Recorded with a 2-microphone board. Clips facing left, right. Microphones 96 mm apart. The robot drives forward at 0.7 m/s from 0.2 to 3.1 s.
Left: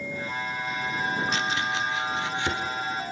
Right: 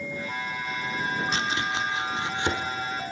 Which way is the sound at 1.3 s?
30° right (ahead or behind).